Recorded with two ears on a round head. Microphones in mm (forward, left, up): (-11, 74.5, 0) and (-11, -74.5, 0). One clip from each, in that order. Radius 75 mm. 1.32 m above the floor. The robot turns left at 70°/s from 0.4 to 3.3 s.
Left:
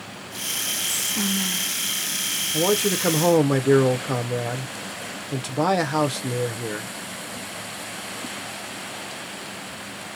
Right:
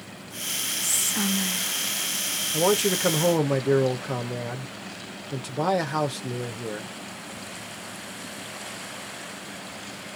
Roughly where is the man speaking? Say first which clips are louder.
Even; behind right.